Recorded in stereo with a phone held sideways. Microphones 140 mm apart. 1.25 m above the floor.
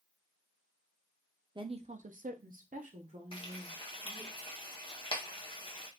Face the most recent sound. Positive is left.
turn(degrees=40)  # may be behind; listen again after turning